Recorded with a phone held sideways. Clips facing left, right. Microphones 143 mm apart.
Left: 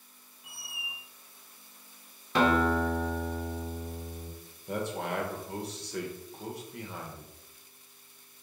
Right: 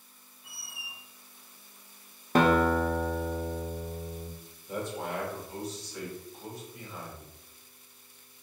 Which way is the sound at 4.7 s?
70° left (ahead or behind).